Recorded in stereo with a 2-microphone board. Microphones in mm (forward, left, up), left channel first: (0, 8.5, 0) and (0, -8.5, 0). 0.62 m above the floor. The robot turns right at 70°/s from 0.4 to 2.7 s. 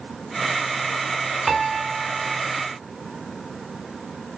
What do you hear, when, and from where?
1.5 s a piano: 170° left, 1.4 m; by 2.4 s 125° right, 1.4 m